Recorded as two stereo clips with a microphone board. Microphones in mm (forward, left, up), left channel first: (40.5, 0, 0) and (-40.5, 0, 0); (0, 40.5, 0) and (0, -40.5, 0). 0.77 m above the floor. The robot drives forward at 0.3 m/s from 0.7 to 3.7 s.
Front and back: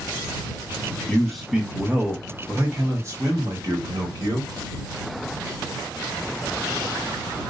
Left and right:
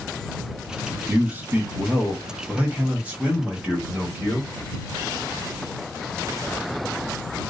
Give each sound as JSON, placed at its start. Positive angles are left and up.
{"t": 1.1, "sound": "a man speaking", "azimuth_deg": -70, "distance_m": 0.7}